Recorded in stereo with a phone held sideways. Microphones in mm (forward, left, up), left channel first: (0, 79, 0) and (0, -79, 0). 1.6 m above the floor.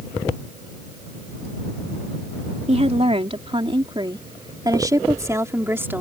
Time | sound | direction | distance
2.7 | a woman speaking | 45° right (ahead or behind) | ?